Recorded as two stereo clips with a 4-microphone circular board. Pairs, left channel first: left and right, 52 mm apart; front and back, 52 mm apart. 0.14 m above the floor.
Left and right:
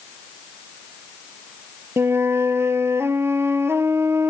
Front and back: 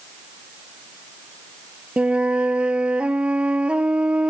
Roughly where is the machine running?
No machine running in this recording.